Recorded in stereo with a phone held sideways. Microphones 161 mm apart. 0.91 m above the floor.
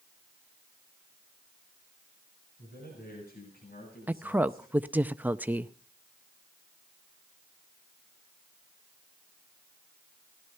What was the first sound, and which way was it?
A man speaking, 70° left (ahead or behind).